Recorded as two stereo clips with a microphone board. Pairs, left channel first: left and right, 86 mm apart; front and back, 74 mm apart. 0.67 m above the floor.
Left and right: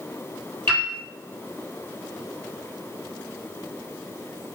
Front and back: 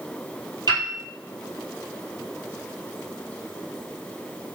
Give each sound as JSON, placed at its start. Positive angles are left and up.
{"t": 0.7, "sound": "a piano", "azimuth_deg": 150, "distance_m": 2.5}